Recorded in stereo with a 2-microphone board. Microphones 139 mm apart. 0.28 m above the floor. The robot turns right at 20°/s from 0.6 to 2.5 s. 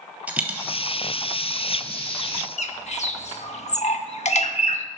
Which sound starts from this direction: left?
A bird, at 2.6 s.